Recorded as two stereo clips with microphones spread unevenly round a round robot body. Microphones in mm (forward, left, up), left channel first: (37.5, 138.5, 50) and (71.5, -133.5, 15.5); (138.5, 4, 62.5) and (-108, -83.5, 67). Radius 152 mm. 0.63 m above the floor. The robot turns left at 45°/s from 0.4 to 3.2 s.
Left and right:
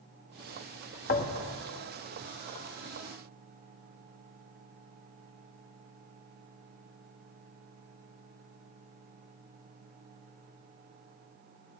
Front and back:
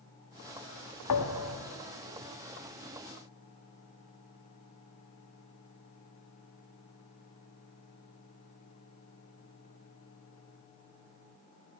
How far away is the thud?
About 1.6 m.